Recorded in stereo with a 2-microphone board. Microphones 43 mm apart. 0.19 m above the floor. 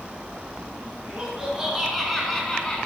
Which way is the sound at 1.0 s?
20° right (ahead or behind).